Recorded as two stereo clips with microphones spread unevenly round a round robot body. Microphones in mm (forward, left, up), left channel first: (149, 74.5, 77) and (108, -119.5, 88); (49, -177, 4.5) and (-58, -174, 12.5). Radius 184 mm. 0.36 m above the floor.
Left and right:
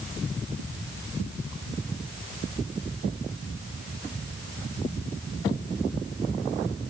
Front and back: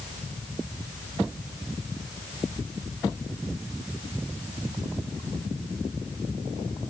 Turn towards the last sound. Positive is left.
No sound to turn to.